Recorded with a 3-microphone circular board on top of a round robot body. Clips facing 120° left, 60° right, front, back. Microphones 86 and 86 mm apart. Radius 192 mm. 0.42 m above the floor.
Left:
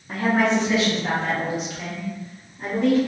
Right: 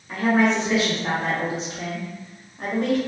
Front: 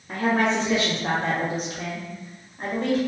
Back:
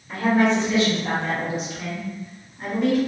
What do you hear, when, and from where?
0.1 s a woman speaking: 55° left, 1.1 m; by 3.0 s 55° right, 1.3 m